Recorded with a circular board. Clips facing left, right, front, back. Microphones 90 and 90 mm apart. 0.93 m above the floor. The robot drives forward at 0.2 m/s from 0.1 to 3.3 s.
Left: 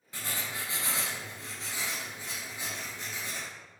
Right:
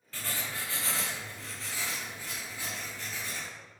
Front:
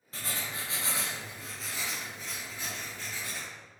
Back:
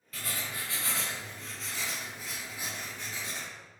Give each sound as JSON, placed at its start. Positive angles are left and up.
{"t": 0.1, "sound": "writing", "azimuth_deg": 30, "distance_m": 0.7}